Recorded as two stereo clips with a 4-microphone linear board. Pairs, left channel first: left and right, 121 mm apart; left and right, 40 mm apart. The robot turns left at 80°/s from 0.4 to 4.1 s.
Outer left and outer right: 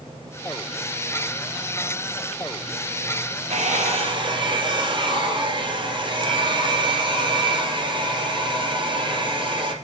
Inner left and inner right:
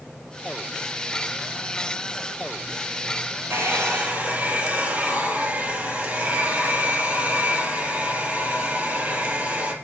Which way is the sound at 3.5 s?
90° right.